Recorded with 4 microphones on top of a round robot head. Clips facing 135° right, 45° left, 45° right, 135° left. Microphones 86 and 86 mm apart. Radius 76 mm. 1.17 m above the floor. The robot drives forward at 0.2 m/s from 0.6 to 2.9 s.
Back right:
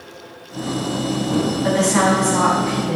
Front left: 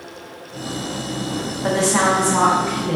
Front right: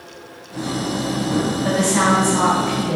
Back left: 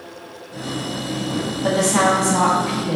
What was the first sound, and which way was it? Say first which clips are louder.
A woman speaking: front left 1 dB, back left 2 dB; 125° left.